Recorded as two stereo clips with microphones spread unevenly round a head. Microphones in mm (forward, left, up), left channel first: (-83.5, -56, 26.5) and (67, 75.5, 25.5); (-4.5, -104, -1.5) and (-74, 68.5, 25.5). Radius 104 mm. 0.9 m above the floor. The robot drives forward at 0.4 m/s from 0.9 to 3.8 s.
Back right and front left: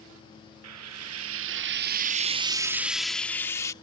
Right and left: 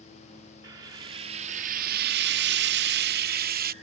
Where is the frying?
45° left; by 3.7 s 145° left.